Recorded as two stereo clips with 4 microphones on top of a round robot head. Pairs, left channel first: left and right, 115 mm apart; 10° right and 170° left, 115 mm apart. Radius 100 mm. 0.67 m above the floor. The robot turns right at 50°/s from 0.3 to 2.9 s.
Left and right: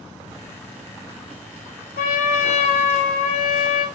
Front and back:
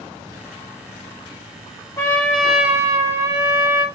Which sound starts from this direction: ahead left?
A trumpet, at 2.0 s.